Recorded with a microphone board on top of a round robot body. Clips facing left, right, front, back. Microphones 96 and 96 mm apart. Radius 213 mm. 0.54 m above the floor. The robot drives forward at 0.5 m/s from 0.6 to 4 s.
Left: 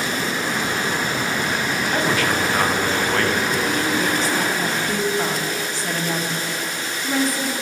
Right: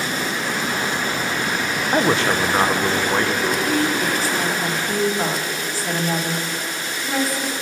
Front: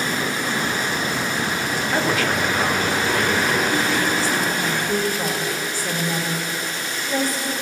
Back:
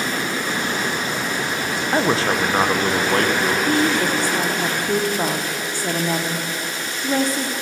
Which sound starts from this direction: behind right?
A man speaking, at 1.9 s.